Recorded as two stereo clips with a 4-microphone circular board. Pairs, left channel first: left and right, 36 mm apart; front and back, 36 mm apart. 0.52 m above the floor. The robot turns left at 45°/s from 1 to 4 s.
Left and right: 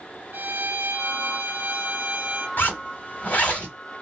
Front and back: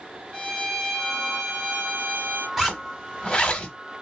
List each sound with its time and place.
0.3 s a violin: 75° right, 1.2 m; by 2.5 s 140° right, 1.2 m
2.6 s a zipper: 95° left, 1.3 m; by 3.8 s 45° left, 1.3 m